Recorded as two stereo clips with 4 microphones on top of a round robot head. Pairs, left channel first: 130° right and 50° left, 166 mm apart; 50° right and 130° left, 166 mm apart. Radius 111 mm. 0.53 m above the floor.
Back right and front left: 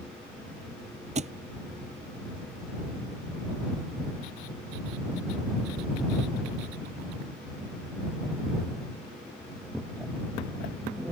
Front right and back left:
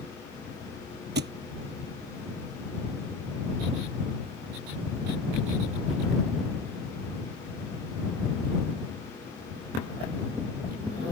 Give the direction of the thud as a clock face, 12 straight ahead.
9 o'clock.